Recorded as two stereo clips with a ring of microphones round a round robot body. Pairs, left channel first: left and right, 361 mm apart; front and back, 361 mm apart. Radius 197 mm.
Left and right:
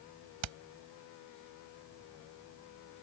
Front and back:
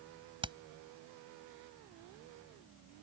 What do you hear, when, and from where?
0.4 s hammering: 105° right